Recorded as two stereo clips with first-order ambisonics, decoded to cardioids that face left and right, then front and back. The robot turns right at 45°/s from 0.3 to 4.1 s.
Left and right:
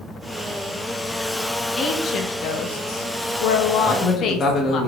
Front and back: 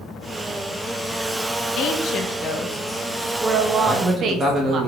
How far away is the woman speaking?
About 0.7 m.